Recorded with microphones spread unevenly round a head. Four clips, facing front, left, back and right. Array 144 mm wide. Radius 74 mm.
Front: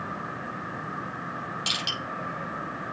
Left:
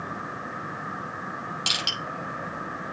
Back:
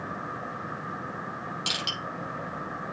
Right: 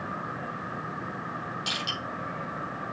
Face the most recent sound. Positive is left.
turn(degrees=85)